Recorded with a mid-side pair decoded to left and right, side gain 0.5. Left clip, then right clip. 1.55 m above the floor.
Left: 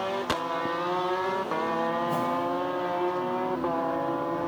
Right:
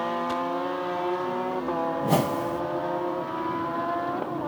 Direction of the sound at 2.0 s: 70° right.